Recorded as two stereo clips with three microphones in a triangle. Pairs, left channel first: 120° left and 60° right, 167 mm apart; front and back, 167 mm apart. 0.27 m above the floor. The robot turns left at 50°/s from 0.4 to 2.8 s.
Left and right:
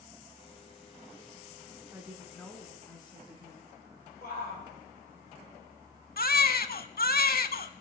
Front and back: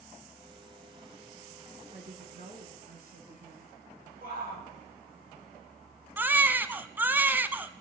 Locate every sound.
1.9 s a woman speaking: 135° right, 2.5 m; by 3.7 s 175° right, 2.5 m
4.2 s a shout: 150° left, 8 m
6.2 s a baby crying: 100° left, 0.7 m